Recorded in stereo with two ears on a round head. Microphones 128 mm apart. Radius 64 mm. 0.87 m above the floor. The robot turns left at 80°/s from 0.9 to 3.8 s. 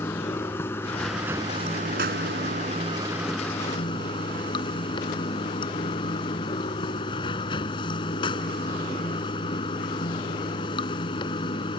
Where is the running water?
15° left; by 11.8 s 145° left.